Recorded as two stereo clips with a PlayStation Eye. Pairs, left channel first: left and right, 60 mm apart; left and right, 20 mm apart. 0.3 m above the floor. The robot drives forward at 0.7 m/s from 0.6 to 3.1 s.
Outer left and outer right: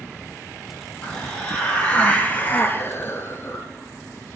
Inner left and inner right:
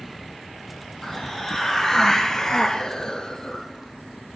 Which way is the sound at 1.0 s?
15° left (ahead or behind).